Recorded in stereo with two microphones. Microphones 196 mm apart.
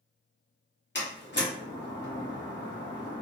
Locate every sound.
0.9 s a door slam: 60° left (ahead or behind), 1.3 m